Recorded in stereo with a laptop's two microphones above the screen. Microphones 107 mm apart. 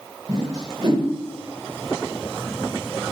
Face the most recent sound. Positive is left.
turn(degrees=-40)  # may be behind; listen again after turning